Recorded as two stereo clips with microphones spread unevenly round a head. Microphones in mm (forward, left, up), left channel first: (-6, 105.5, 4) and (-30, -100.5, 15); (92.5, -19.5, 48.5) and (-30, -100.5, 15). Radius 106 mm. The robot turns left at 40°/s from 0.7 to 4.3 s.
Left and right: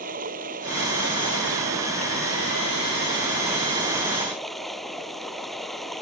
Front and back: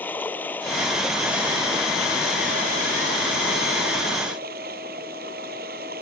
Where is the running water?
45° right; by 6.0 s 175° left.